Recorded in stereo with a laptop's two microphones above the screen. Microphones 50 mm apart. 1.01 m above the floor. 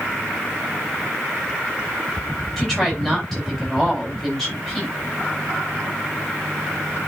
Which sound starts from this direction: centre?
A woman speaking, at 2.6 s.